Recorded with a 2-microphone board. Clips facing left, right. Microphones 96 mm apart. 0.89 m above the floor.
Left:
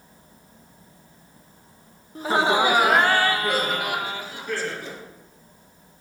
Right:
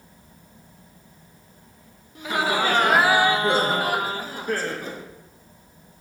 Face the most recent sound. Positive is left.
turn(degrees=-45)  # may be behind; listen again after turning